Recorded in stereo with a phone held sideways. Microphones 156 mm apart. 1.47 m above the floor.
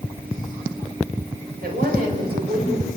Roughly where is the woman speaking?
Right.